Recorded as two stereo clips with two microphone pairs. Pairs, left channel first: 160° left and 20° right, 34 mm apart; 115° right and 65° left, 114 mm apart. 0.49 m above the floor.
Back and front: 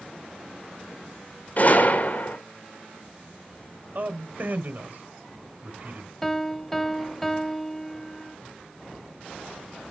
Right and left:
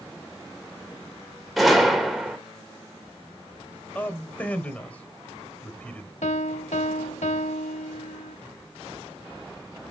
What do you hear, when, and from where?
1.6 s a gunshot: 155° left, 2 m
4.0 s a man speaking: 40° right, 2.0 m
6.2 s a piano: 115° right, 0.7 m